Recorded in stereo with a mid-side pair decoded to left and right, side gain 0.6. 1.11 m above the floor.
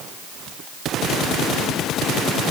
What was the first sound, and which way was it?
Only background noise.